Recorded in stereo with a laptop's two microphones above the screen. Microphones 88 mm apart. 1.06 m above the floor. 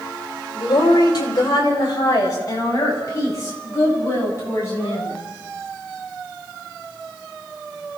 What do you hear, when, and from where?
0.6 s a woman speaking: 55° left (ahead or behind), 4.5 m; by 5.2 s 30° left (ahead or behind), 9.5 m